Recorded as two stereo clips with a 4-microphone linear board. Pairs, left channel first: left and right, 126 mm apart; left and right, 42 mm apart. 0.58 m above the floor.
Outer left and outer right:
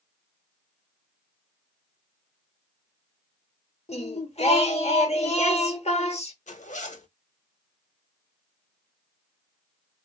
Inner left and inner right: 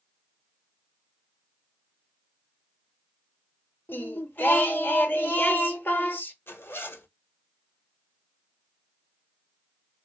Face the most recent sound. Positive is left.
turn(degrees=75)  # may be behind; listen again after turning